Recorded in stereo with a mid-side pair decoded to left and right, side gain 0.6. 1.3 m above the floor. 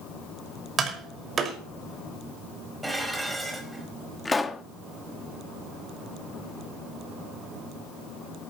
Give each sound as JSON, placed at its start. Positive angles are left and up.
{"t": 0.8, "sound": "tapping", "azimuth_deg": -35, "distance_m": 5.5}
{"t": 2.8, "sound": "dishes clattering", "azimuth_deg": -10, "distance_m": 5.5}
{"t": 4.2, "sound": "a pop", "azimuth_deg": 15, "distance_m": 1.8}